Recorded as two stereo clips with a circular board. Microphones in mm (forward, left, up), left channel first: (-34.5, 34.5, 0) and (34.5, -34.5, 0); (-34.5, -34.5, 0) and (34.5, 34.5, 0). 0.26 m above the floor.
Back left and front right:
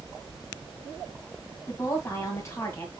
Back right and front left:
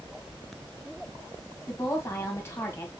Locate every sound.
1.7 s a woman speaking: straight behind, 1.8 m